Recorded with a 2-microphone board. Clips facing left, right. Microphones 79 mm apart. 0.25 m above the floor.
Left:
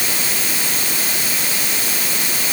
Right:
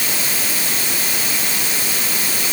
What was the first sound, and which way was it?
Only background noise.